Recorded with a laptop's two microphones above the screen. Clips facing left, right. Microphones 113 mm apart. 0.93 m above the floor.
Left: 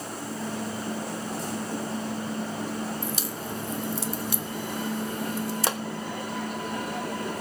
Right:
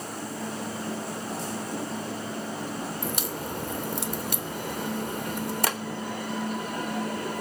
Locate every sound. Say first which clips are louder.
3.0 s a crack: right 1 dB; 55° right (ahead or behind), 0.7 m
5.7 s a pop: left 2 dB; 25° left (ahead or behind), 0.9 m